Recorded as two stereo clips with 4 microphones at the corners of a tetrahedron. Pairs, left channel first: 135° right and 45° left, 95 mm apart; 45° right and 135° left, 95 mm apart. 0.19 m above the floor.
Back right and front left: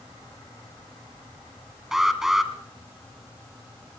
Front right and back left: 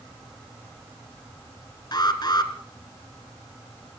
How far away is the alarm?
About 1.8 m.